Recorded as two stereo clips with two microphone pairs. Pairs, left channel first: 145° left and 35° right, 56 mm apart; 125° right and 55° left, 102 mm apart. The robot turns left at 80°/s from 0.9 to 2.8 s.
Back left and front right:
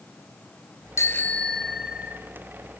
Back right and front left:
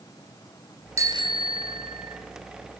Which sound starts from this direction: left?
A bicycle bell, at 1.0 s.